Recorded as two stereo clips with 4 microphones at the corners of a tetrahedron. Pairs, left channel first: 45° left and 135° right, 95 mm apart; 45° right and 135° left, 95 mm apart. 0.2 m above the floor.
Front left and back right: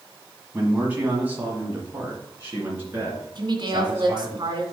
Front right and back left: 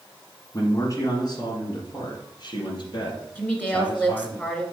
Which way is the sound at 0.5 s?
75° right.